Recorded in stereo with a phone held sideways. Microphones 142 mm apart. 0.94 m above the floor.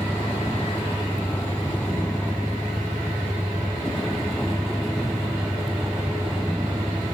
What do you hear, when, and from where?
0.0 s a vehicle: 15° left (ahead or behind); by 7.2 s 5° right (ahead or behind)